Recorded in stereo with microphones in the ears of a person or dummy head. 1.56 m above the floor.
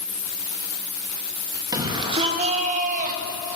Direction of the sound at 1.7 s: 20° right (ahead or behind).